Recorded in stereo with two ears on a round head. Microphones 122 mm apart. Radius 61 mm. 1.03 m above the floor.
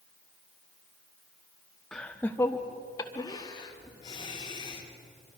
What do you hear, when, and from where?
1.9 s laughter: 5° left (ahead or behind), 0.9 m; by 4.9 s 35° left (ahead or behind), 3 m